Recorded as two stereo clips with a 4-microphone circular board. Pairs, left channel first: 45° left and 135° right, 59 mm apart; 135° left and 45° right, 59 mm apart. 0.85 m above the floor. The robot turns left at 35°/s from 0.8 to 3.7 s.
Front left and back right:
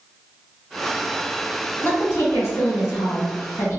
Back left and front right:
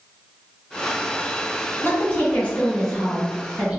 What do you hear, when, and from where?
1.8 s a woman speaking: 95° left, 1.3 m; by 3.8 s 30° left, 1.3 m